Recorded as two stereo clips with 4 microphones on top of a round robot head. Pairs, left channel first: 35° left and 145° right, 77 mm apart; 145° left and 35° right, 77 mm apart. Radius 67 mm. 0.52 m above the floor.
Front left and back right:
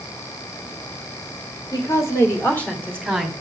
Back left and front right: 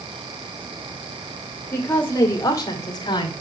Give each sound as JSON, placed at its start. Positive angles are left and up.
{"t": 1.7, "sound": "a woman speaking", "azimuth_deg": 75, "distance_m": 2.5}